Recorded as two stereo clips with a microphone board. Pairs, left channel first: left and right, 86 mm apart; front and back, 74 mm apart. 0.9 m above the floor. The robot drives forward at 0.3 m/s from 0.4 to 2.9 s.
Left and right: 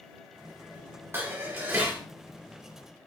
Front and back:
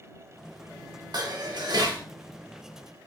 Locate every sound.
1.1 s dishes clattering: 150° right, 1.1 m; by 2.0 s 155° right, 1.3 m